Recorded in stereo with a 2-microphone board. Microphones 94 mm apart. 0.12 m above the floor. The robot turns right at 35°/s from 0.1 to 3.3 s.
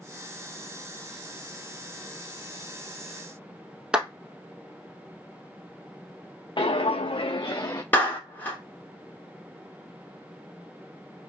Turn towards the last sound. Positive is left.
turn(degrees=20)  # may be behind; listen again after turning